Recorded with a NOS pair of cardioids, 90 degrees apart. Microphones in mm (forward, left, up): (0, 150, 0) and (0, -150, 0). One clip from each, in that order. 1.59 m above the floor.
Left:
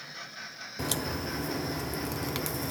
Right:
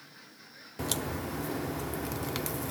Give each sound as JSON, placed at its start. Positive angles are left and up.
{"t": 0.8, "sound": "a crack", "azimuth_deg": 5, "distance_m": 0.5}